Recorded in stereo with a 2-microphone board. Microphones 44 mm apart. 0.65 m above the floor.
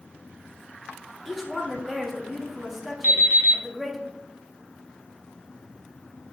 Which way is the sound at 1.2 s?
5° right (ahead or behind).